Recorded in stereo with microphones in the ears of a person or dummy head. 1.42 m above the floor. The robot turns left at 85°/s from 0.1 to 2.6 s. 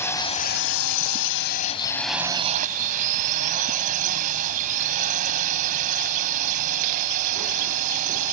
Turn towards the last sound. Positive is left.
turn(degrees=-45)